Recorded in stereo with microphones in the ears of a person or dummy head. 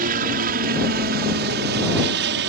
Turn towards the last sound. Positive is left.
turn(degrees=-60)  # may be behind; listen again after turning